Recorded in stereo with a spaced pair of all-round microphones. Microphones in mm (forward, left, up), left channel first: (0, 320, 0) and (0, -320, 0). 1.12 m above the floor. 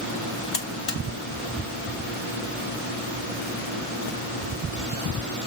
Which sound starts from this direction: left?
A buzzer, at 0.5 s.